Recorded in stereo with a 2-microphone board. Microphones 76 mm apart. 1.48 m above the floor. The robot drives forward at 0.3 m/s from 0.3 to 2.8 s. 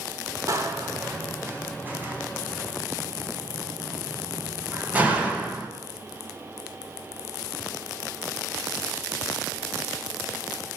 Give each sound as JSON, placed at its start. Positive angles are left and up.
{"t": 0.5, "sound": "a door slam", "side_deg": -45, "distance_m": 0.8}